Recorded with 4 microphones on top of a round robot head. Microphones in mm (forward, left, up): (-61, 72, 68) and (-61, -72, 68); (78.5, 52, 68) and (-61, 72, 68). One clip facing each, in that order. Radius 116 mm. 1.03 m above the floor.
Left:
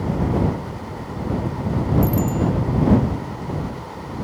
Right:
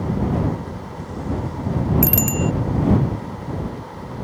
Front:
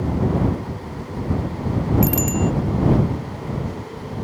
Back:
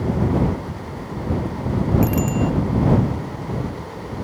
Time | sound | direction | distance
2.0 | a bicycle bell | 75° right | ?